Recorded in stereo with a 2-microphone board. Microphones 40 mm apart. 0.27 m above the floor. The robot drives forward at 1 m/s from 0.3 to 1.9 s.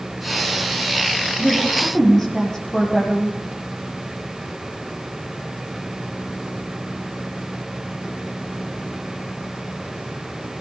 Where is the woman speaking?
10° left (ahead or behind), 10 m.